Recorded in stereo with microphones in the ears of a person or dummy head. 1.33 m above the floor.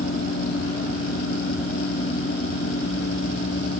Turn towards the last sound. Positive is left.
No sound to turn to.